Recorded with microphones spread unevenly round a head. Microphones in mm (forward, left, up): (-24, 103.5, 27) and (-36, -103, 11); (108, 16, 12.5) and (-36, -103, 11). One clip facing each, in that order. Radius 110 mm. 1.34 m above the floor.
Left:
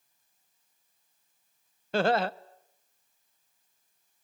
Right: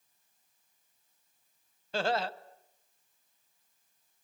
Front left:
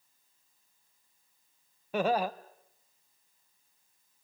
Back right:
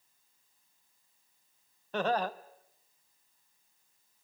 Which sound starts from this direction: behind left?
Laughter, at 1.9 s.